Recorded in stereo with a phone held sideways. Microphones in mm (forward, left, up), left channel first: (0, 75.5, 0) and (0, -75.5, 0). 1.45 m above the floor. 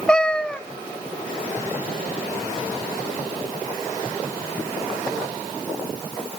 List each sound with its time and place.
0.1 s a cat meowing: 5° left (ahead or behind), 0.7 m